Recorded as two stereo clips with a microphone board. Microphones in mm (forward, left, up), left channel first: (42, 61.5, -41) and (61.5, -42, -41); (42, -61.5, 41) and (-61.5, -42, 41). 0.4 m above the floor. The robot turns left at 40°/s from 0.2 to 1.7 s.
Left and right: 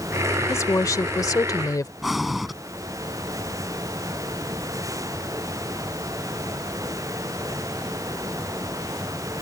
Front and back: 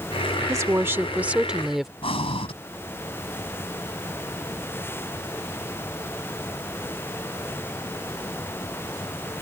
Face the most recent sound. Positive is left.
turn(degrees=10)